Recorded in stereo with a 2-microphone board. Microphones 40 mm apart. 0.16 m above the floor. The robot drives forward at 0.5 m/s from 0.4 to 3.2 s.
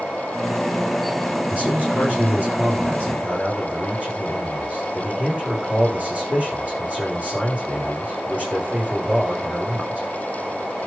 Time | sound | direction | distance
1.5 | a man speaking | 40° right (ahead or behind) | 8.5 m